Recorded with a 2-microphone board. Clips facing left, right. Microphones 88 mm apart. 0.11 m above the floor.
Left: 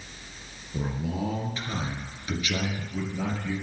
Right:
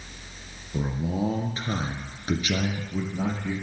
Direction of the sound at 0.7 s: 25° right (ahead or behind).